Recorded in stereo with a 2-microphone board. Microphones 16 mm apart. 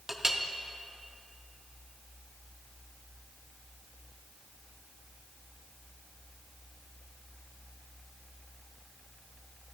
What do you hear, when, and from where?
0.1 s a clink: 10° right (ahead or behind), 0.5 m